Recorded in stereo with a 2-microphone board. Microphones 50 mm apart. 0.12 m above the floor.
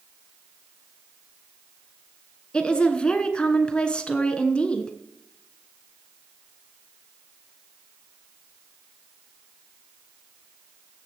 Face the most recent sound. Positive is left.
turn(degrees=20)  # may be behind; listen again after turning